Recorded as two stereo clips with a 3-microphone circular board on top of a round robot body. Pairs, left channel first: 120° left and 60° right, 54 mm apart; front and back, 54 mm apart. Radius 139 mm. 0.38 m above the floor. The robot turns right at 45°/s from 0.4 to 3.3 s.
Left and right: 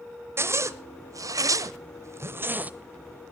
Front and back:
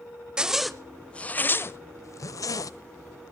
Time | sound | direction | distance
0.4 | a zipper | 100° right | 0.8 m